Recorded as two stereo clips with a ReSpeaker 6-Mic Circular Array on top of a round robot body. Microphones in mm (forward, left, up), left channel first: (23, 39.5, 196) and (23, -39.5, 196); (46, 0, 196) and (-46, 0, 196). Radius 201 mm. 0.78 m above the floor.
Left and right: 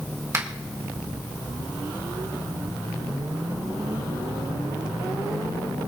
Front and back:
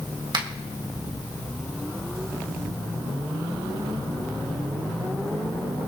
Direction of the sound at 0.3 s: 140° right.